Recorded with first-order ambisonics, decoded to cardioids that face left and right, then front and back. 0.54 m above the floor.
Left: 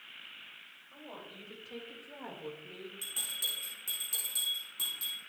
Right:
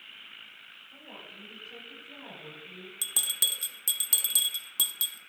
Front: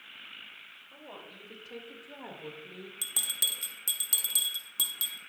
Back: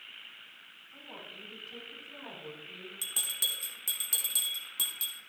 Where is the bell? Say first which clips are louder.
Right 7 dB, front 1 dB; 75° right, 1.1 m.